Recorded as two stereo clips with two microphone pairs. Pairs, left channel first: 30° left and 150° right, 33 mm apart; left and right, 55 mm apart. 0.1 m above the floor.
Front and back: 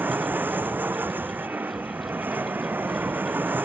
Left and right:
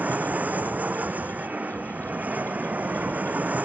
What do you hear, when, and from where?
0.0 s an aircraft: 155° right